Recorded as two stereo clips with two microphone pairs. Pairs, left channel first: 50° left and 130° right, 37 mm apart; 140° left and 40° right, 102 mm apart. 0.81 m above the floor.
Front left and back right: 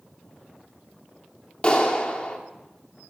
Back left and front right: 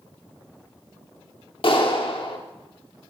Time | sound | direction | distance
1.6 | a clap | 110° left | 1.5 m